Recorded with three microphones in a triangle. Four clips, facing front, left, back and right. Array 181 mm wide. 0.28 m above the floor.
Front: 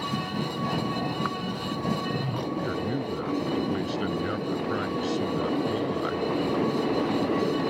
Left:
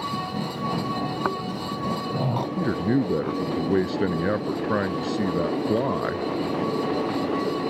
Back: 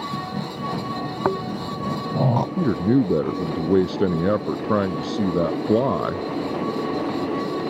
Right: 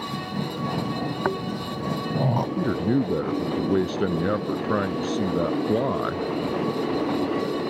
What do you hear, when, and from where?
1.2 s snoring: 170° right
2.6 s a man speaking: 175° left